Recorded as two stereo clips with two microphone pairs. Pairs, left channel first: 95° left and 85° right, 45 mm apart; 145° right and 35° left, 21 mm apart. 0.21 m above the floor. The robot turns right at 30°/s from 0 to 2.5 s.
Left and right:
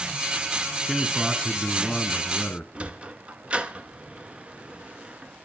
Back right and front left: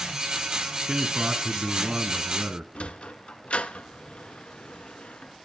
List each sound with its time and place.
0.9 s a man speaking: straight ahead, 1.9 m; by 2.6 s 50° left, 1.9 m
2.8 s a sliding door: 145° right, 0.8 m